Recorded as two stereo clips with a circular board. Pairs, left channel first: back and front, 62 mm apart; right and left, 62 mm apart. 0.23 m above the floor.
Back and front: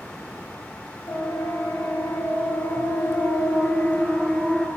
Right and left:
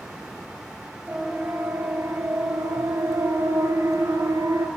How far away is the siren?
About 6 m.